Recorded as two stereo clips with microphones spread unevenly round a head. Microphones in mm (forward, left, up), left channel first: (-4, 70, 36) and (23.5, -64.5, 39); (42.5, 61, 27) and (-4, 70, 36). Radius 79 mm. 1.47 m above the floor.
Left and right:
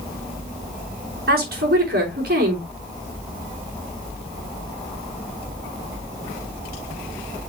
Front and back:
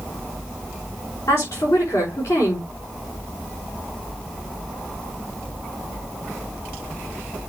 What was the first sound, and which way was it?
A woman speaking, 60° right.